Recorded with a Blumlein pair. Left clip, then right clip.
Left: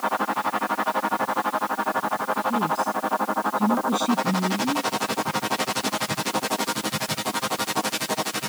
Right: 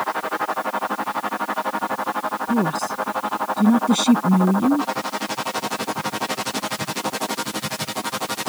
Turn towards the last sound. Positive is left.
turn(degrees=-25)